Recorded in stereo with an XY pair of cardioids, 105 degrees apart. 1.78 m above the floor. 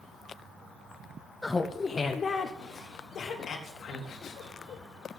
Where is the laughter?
15° left, 0.9 m; by 4.8 s 75° left, 3.5 m.